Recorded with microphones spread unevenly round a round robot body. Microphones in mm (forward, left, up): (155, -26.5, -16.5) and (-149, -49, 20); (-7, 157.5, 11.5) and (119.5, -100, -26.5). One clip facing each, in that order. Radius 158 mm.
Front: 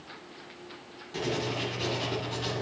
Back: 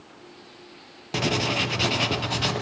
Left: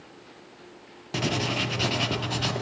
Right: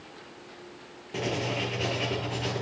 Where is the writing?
160° left, 1.1 m.